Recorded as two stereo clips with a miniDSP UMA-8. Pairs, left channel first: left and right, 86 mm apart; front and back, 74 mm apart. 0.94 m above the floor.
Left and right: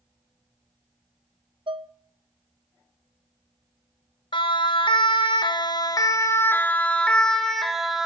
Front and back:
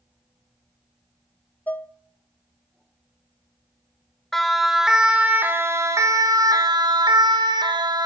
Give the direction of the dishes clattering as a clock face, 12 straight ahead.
2 o'clock.